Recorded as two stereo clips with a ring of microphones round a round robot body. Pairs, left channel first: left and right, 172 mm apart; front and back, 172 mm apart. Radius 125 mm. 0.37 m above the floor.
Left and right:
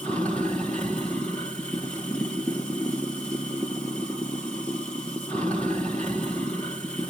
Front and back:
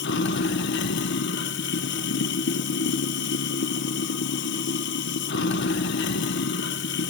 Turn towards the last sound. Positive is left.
turn(degrees=5)